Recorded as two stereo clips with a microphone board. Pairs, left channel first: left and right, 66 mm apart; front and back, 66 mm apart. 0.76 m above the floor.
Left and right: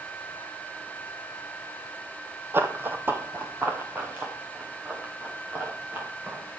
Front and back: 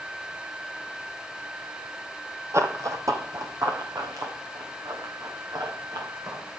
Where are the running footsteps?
140° right, 1.4 m; by 6.4 s 155° right, 7 m.